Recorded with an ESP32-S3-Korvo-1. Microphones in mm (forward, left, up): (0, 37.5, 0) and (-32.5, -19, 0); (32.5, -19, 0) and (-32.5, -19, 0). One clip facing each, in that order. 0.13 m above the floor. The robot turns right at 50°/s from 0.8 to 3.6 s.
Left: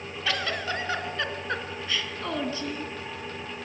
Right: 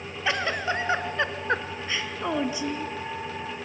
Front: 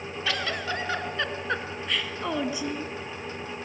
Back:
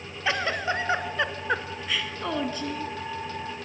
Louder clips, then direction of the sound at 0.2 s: Right 3 dB, back 4 dB; 150° right.